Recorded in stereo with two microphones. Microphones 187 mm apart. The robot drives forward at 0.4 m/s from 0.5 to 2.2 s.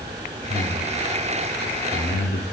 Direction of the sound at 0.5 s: 55° left (ahead or behind).